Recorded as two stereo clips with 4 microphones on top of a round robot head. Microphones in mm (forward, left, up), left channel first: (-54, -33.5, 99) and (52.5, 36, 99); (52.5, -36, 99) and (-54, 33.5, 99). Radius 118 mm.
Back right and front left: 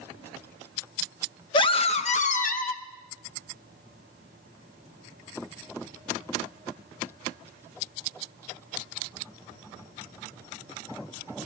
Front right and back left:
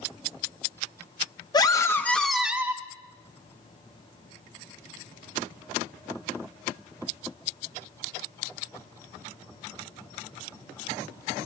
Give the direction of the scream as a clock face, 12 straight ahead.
3 o'clock.